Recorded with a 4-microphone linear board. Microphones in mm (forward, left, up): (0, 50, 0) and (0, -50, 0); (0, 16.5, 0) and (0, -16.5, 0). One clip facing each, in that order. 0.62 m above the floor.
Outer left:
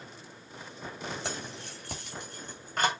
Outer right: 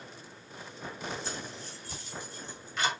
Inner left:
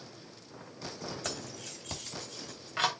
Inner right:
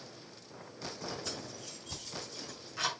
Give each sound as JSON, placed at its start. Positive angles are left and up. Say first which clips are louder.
{"t": 1.2, "sound": "keys jangling", "louder": "outer left 2 dB, inner left 3 dB", "side_deg": 75, "distance_m": 3.0}